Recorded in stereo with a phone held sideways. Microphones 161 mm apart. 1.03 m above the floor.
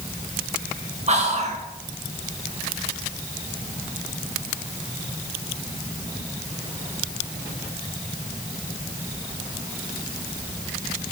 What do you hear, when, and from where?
1.1 s whispering: 45° right (ahead or behind), 0.6 m